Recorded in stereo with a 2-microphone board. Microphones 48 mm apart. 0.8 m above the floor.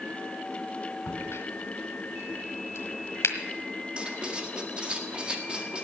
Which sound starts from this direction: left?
A crack, at 1.1 s.